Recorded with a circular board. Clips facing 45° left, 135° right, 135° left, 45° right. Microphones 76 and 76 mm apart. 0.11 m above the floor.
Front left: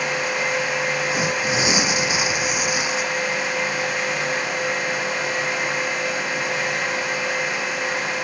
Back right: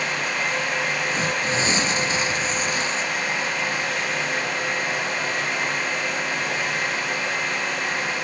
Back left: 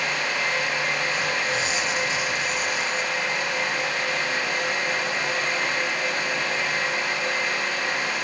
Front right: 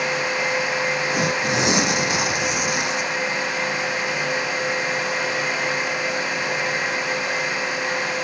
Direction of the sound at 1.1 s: 35° right.